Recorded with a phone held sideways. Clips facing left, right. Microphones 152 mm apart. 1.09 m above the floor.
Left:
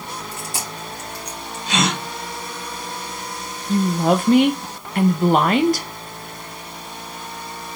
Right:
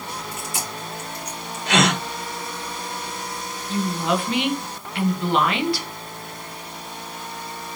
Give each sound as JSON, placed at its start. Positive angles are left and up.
{"t": 0.3, "sound": "chewing", "side_deg": 35, "distance_m": 3.0}
{"t": 1.7, "sound": "a gasp", "side_deg": -70, "distance_m": 4.0}
{"t": 3.7, "sound": "a woman speaking", "side_deg": 45, "distance_m": 1.1}